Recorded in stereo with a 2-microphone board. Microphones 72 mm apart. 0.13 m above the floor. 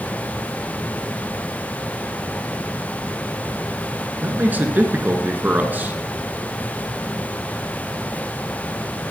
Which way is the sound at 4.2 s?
25° right (ahead or behind).